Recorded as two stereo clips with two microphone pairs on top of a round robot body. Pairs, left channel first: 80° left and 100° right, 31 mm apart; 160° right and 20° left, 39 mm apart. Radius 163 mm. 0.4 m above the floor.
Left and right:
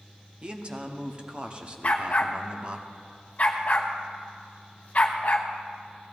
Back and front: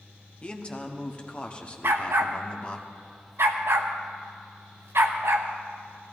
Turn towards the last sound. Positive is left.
turn(degrees=35)